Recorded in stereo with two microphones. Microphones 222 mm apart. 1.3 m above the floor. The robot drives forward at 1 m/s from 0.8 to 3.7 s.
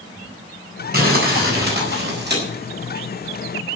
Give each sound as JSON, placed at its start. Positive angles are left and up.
{"t": 0.9, "sound": "crumpling", "side_deg": -40, "distance_m": 8.0}